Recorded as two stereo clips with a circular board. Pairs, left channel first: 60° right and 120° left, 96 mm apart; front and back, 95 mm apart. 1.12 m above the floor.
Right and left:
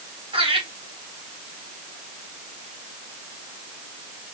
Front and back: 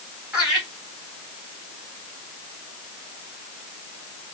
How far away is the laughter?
About 3.5 m.